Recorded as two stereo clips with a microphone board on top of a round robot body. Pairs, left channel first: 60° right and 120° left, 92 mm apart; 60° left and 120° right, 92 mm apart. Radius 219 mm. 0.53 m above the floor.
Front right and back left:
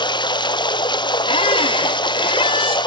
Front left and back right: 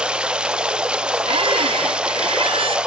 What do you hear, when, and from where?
0.0 s running water: 40° right, 1.2 m
1.3 s a squeak: 90° right, 1.2 m